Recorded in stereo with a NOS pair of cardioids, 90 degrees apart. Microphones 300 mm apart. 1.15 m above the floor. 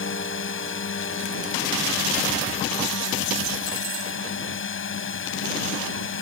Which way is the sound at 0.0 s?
40° left.